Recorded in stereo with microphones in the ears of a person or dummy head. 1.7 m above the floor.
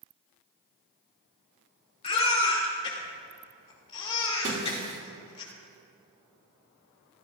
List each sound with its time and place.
2.0 s a baby crying: 30° left (ahead or behind), 3 m
4.4 s breaking glass: 40° right (ahead or behind), 2 m